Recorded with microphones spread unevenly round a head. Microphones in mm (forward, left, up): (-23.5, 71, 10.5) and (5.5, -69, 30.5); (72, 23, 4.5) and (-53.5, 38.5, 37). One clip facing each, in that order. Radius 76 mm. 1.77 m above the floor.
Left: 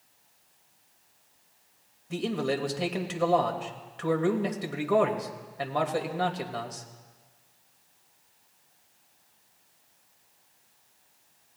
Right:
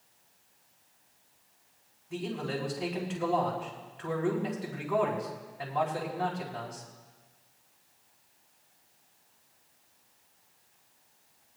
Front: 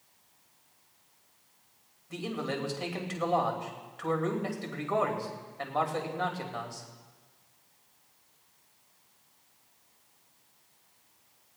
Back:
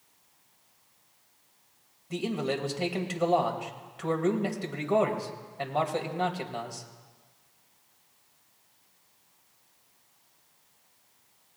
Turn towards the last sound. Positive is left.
turn(degrees=105)